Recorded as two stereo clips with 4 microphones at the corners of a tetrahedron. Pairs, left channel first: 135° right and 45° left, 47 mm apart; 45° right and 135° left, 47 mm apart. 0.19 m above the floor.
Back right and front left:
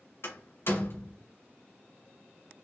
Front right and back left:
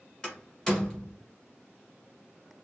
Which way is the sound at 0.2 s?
120° right.